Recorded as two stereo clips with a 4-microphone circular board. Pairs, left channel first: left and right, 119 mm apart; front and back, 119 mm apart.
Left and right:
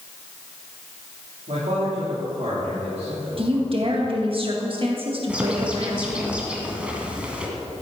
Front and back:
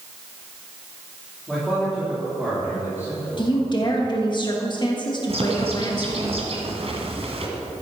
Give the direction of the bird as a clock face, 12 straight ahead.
6 o'clock.